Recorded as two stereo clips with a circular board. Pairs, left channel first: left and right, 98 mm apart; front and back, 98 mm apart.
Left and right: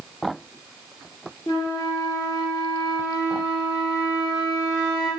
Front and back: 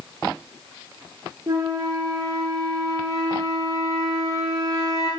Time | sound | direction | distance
1.5 | a flute | 135° left | 1.1 m